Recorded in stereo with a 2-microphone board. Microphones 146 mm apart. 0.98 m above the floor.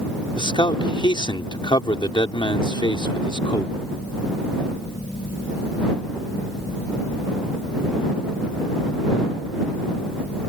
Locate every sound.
0.4 s a man speaking: 35° left (ahead or behind)